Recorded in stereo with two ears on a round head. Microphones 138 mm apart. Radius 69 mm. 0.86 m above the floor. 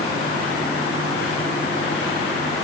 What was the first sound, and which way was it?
Only background noise.